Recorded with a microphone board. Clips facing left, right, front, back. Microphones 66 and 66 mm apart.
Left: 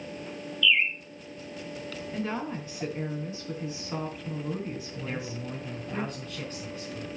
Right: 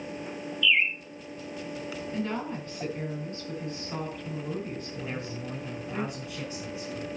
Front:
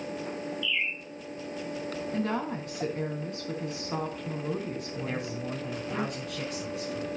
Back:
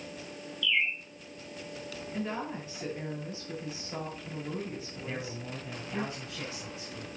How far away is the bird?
About 1.9 m.